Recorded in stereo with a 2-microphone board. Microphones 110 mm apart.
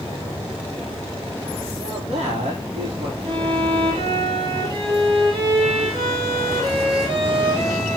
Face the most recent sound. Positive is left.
turn(degrees=-55)  # may be behind; listen again after turning